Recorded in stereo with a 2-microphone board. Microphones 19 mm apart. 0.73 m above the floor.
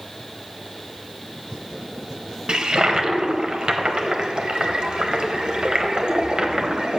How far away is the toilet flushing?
About 0.8 m.